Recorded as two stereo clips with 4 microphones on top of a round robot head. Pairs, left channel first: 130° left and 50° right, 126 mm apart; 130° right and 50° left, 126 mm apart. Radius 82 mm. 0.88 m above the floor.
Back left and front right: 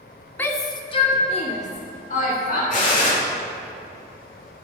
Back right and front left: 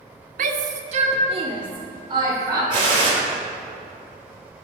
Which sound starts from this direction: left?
A gunshot, at 2.7 s.